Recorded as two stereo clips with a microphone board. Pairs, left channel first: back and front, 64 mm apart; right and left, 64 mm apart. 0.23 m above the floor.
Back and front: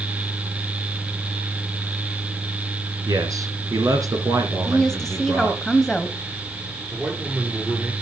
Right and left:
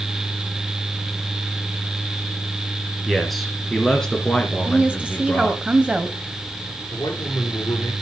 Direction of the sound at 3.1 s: Straight ahead.